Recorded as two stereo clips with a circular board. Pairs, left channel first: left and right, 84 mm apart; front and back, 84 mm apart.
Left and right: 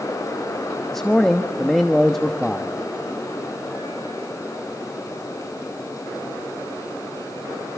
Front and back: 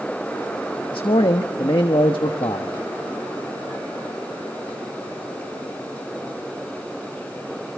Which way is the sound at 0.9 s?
5° left.